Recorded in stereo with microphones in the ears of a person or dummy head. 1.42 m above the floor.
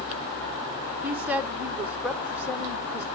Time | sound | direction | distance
1.0 | a woman speaking | centre (ahead or behind) | 1.3 m